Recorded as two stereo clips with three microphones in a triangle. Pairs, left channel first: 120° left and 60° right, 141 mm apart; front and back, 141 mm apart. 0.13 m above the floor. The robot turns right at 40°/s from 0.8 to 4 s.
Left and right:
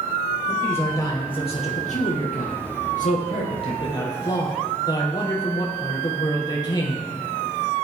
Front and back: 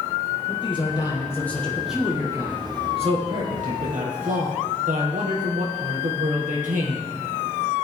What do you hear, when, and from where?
0.5 s a man speaking: 50° left, 3 m; by 7.1 s straight behind, 3 m